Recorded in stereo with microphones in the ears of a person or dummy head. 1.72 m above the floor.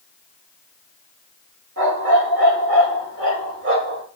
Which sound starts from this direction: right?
A dog barking, at 1.8 s.